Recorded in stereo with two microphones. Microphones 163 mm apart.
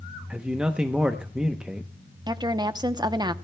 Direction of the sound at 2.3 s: 25° right (ahead or behind).